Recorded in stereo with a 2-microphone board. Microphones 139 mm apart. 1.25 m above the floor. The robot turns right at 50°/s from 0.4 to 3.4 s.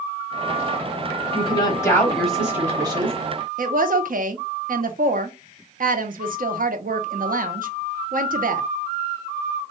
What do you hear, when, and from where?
1.3 s a woman speaking: 135° left, 1.0 m; by 3.2 s 135° right, 1.0 m
3.6 s a woman speaking: 80° right, 0.7 m